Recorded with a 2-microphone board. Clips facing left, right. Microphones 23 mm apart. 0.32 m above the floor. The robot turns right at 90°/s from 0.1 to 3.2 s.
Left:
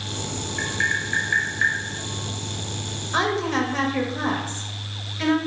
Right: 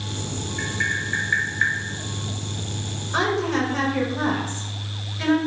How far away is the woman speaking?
About 0.9 m.